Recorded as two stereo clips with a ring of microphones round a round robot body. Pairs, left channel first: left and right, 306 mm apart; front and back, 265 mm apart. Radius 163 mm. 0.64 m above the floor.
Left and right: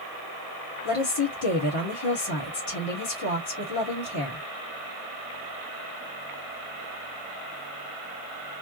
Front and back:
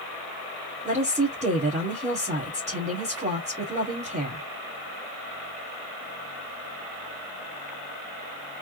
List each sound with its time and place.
0.8 s a woman speaking: 115° left, 1.9 m